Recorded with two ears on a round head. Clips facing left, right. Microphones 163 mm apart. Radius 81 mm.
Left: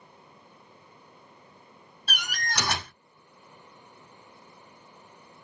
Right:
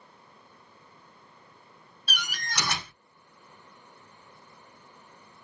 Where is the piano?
I don't hear a piano.